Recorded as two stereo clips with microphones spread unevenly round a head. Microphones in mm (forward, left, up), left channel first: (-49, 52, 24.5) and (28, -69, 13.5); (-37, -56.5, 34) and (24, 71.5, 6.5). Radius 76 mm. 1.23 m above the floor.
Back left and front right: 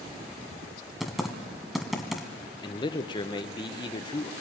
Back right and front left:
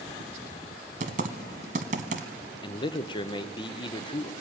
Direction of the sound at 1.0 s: 35° left.